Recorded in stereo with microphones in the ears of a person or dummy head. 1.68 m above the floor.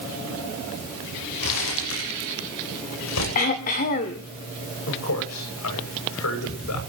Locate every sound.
1.4 s crumpling: 80° left, 8.5 m
3.4 s throat clearing: 35° left (ahead or behind), 2 m
4.9 s a man speaking: 80° left, 8 m